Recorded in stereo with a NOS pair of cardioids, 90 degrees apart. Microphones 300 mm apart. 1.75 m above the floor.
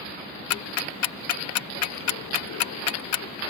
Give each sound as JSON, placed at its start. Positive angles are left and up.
{"t": 0.5, "sound": "ticking", "azimuth_deg": 65}